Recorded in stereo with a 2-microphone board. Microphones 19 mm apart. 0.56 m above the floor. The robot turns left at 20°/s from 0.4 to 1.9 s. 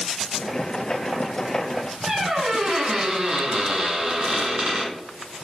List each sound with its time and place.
2.1 s a squeak: 85° right, 1.9 m